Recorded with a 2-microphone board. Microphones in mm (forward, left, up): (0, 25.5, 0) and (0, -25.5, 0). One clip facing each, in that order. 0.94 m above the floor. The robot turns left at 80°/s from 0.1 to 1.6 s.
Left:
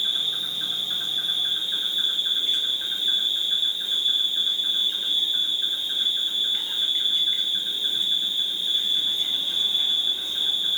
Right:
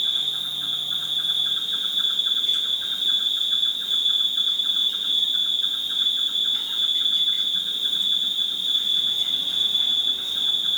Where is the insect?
150° left, 2.5 m; by 10.8 s 30° left, 2.5 m.